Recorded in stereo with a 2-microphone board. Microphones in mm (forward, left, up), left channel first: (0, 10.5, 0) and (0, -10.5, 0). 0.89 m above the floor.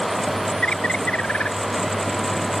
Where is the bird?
80° left.